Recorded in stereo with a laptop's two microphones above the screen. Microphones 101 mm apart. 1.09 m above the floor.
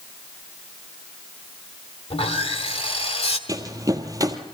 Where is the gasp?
I don't hear a gasp.